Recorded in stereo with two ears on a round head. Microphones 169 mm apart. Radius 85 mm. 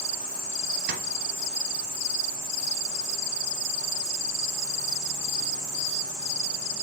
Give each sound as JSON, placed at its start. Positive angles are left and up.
{"t": 0.9, "sound": "tapping", "side_deg": -55, "distance_m": 2.5}